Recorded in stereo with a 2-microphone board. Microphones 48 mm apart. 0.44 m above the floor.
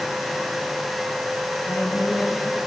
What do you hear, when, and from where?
1.6 s a woman speaking: 75° left (ahead or behind), 4.5 m